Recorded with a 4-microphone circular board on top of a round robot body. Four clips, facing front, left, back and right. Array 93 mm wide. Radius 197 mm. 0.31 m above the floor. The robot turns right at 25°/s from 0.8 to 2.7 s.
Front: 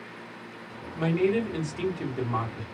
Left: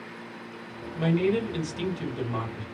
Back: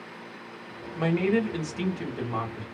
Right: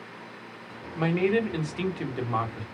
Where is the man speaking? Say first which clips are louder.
Even, even; 120° right, 1.5 m; by 2.6 s 80° right, 1.5 m.